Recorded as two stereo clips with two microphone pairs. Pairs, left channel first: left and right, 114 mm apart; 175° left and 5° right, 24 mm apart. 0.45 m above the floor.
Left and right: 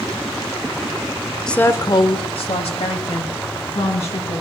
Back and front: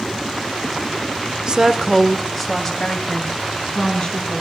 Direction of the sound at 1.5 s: 5° left.